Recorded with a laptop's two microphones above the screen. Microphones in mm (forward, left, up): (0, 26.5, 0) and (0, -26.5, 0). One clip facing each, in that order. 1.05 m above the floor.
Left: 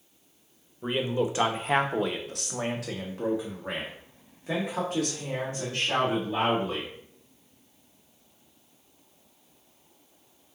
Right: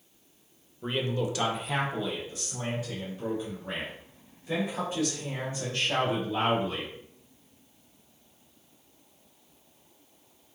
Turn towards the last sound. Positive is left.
turn(degrees=65)  # may be behind; listen again after turning